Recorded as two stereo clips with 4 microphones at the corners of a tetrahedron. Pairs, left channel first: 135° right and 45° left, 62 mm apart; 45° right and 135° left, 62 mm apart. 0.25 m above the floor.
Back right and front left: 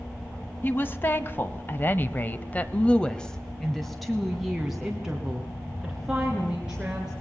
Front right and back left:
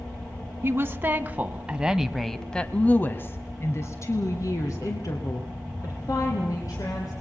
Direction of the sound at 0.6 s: 175° left.